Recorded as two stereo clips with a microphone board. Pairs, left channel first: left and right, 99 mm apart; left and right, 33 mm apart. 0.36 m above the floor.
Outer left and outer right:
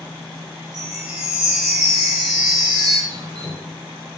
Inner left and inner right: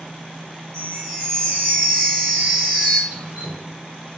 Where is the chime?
5° right (ahead or behind), 2.0 m.